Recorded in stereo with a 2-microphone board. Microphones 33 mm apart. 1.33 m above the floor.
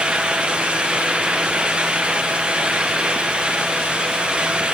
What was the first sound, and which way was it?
Only background noise.